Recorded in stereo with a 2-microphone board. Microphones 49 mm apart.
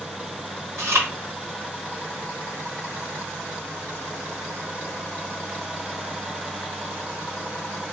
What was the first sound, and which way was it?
Chewing, 60° right (ahead or behind).